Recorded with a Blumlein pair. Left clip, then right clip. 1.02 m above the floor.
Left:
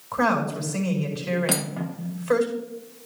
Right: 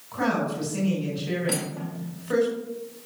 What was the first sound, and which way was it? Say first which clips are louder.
A woman speaking: left 3 dB; 70° left.